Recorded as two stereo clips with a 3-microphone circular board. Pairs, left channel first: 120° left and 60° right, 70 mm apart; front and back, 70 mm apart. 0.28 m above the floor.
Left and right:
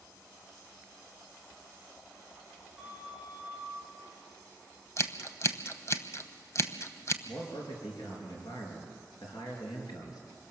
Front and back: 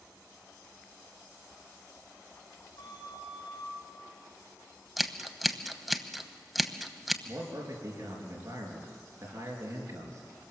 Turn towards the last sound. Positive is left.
turn(degrees=140)